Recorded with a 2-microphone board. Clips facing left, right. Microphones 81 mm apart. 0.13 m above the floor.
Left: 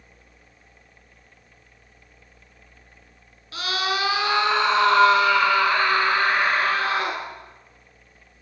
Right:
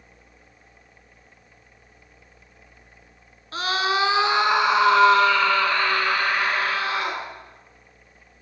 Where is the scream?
35° right (ahead or behind), 1.5 m; by 7.2 s 45° left (ahead or behind), 1.7 m.